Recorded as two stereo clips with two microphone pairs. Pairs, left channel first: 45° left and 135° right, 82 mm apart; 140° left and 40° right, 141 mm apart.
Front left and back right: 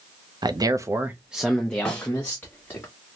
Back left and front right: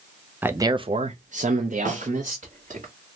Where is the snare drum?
30° right, 1.7 m.